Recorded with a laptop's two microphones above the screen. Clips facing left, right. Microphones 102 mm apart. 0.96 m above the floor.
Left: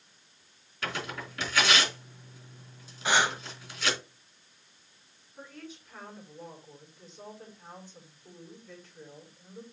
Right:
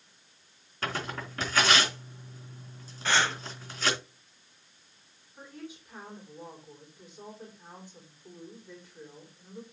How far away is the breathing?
About 0.8 m.